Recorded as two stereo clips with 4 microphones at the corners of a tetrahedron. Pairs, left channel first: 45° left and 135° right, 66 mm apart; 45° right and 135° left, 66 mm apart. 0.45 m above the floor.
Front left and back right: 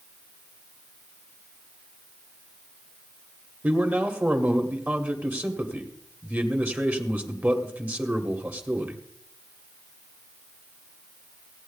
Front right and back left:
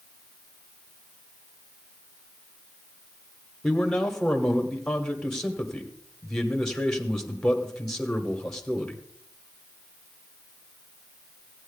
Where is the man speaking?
120° right, 1.5 m.